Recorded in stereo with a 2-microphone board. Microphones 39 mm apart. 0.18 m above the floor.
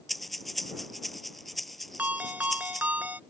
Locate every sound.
0.1 s breathing: centre (ahead or behind)
2.0 s a ringtone: 50° right (ahead or behind)